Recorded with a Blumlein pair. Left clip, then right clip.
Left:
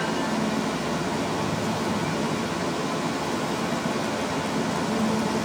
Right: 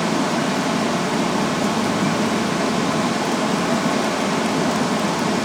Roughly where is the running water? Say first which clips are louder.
Right 6 dB; ahead right.